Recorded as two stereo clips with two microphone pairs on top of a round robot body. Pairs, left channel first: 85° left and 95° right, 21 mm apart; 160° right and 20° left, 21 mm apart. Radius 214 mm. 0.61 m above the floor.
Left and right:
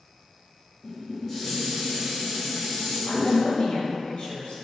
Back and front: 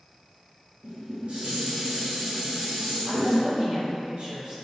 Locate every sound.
0.8 s dishes clattering: 10° left, 1.2 m
3.0 s a woman speaking: 65° left, 1.0 m